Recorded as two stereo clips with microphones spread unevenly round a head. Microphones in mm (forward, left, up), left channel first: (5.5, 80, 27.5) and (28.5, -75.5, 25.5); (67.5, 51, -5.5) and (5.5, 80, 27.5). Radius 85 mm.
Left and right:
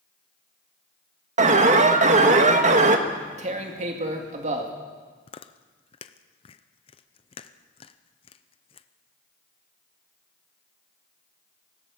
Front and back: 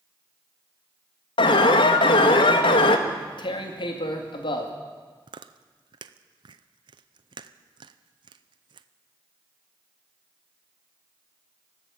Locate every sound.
1.4 s an alarm: 35° right, 1.5 m
3.1 s tearing paper: 35° right, 2 m
5.3 s chewing: 155° left, 0.6 m